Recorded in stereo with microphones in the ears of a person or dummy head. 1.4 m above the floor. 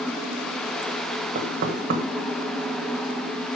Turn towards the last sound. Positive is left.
turn(degrees=-55)  # may be behind; listen again after turning